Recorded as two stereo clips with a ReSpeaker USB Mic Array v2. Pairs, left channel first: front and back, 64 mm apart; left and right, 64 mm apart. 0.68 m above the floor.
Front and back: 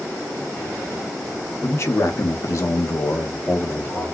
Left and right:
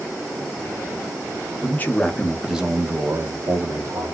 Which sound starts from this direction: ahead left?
A man speaking, at 1.6 s.